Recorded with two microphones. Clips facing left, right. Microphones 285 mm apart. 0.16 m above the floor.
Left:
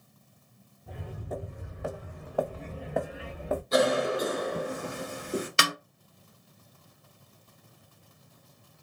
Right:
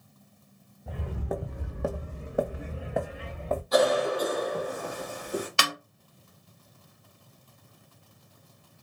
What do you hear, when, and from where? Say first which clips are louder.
0.9 s footsteps: right 5 dB; 80° right, 0.7 m; by 3.6 s 10° left (ahead or behind), 1.0 m
3.7 s a cough: right 1 dB; 25° left (ahead or behind), 1.1 m
5.6 s a snare drum: left 1 dB; 20° left (ahead or behind), 0.5 m